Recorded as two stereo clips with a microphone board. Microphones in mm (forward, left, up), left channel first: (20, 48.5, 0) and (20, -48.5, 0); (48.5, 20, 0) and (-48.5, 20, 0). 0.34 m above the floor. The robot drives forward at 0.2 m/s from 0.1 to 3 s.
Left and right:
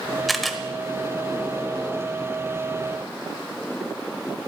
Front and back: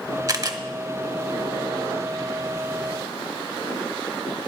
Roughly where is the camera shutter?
Behind.